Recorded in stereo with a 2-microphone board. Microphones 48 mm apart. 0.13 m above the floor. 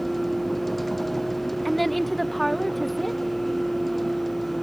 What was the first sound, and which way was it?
A vehicle, 5° left (ahead or behind).